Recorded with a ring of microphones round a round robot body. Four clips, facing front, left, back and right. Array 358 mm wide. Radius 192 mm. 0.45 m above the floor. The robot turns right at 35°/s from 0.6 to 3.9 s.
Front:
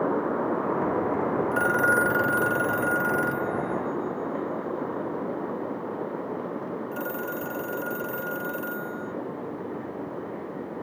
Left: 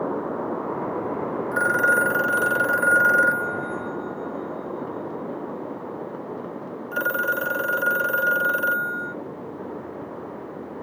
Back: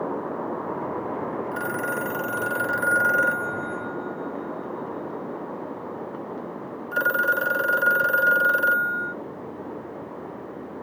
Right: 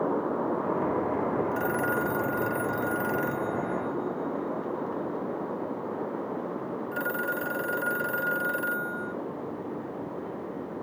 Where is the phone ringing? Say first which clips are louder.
Left 7 dB, front 5 dB; 55° left; by 9.1 s 140° left.